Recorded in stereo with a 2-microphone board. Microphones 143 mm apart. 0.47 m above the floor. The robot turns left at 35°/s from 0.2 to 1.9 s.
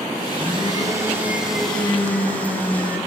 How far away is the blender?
About 5 m.